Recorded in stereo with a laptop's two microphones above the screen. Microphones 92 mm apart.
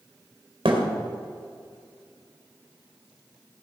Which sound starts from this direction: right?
A thud, at 0.7 s.